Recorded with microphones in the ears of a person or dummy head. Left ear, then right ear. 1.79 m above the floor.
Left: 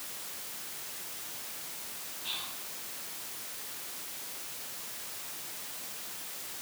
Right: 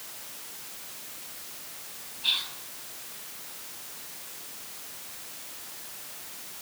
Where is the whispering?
50° right (ahead or behind), 3.5 m.